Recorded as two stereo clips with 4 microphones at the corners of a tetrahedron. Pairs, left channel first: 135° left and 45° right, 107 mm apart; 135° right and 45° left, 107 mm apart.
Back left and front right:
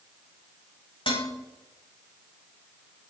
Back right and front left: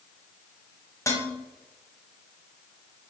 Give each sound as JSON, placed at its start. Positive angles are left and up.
{"t": 1.1, "sound": "dishes clattering", "azimuth_deg": 165, "distance_m": 1.4}